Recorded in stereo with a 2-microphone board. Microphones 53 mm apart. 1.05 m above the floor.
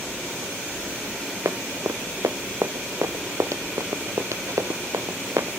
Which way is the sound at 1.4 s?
75° right (ahead or behind).